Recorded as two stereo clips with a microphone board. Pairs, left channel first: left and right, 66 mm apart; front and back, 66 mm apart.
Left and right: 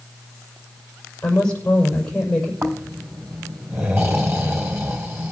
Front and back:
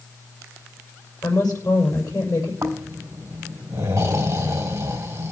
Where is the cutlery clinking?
I don't hear cutlery clinking.